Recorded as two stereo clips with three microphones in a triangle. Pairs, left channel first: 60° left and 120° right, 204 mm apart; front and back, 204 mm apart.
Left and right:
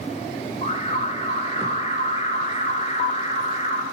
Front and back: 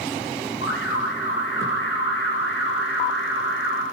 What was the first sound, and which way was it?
An alarm, 5° left.